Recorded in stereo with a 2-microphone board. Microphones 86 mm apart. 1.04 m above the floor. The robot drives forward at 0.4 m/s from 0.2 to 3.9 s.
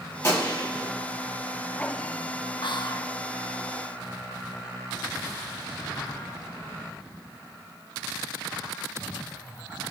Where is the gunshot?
45° left (ahead or behind), 1.7 m; by 0.9 s 40° left (ahead or behind), 1.9 m.